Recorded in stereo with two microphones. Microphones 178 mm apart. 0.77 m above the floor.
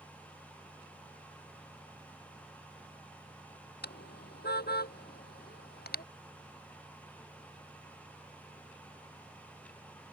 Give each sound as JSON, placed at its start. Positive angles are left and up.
{"t": 3.8, "sound": "a car horn", "side_deg": 65}